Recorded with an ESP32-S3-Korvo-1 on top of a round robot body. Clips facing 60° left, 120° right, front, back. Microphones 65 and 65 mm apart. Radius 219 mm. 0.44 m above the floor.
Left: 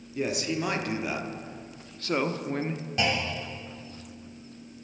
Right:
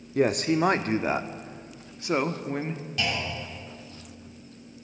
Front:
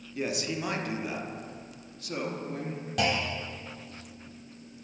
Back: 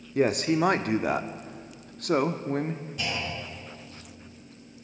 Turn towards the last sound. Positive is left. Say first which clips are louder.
# left 2 dB, front 6 dB
turn(degrees=-5)